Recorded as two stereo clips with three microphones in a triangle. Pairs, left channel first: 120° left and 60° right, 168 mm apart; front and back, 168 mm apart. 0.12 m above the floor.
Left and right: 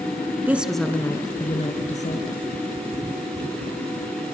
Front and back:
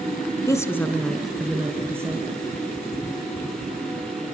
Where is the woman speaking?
5° right, 1.6 m; by 2.4 s 115° left, 2.5 m.